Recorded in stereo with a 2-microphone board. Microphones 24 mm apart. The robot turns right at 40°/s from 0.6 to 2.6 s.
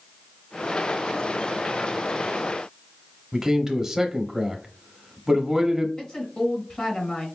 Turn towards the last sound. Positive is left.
turn(degrees=40)  # may be behind; listen again after turning